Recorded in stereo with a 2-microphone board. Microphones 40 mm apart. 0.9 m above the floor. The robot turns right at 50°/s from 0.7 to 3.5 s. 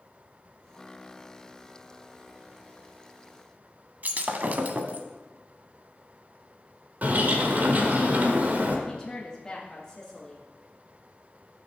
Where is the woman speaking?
20° left (ahead or behind), 1.7 m.